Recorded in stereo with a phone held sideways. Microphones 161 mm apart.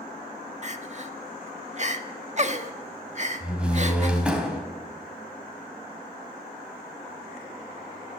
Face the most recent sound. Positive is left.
turn(degrees=-5)  # may be behind; listen again after turning